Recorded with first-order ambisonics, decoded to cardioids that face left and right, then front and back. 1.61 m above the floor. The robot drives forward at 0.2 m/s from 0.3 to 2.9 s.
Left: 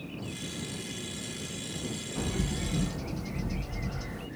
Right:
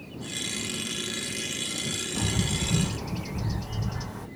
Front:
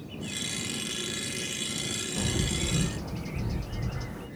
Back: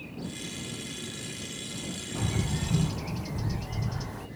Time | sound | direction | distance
2.1 | a bird | 150° right | 2 m